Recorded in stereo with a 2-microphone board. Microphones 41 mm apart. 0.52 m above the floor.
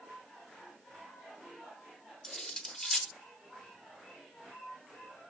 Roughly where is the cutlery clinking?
Centre.